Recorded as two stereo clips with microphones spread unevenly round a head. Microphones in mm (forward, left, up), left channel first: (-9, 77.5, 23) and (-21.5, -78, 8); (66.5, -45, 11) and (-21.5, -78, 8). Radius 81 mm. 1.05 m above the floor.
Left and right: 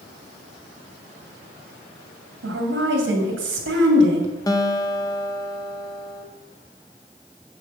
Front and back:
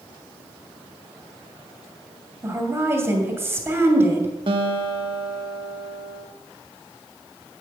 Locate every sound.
2.4 s a woman speaking: 90° right, 2.5 m
4.5 s a guitar: 155° left, 1.0 m